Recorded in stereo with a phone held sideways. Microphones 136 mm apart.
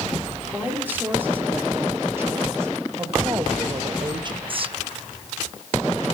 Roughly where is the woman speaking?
Centre.